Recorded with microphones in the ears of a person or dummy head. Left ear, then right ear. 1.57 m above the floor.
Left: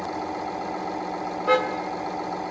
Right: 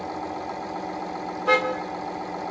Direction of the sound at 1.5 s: 15° right (ahead or behind).